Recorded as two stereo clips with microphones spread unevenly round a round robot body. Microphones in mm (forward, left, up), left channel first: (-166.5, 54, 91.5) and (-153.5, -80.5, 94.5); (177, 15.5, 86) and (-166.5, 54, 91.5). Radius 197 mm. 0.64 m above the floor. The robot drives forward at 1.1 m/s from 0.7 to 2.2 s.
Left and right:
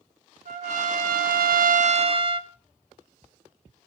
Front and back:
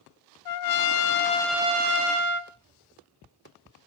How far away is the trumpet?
About 1.1 m.